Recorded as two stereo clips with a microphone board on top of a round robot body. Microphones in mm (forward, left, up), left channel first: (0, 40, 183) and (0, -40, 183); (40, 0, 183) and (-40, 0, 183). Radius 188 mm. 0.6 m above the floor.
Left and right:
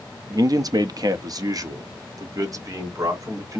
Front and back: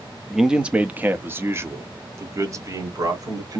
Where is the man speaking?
95° right, 1.0 m; by 3.6 s 140° right, 2.5 m.